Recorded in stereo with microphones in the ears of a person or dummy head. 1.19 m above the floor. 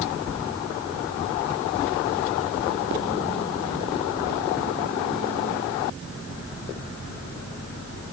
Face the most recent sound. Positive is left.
No sound to turn to.